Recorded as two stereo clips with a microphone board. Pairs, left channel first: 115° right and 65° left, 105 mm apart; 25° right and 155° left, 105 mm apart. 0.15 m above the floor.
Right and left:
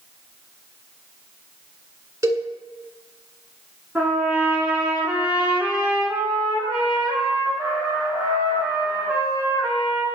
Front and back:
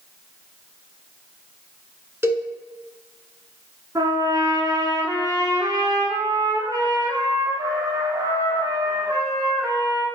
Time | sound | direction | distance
2.2 | a cowbell | 110° left | 1.1 m
4.0 | a trumpet | 140° left | 2.0 m